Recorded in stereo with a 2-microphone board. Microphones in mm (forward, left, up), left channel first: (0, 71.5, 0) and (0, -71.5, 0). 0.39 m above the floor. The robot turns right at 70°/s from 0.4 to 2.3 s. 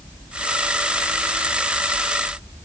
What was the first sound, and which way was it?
Only background noise.